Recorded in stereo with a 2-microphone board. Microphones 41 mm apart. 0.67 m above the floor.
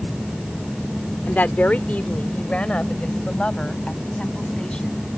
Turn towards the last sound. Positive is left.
turn(degrees=20)  # may be behind; listen again after turning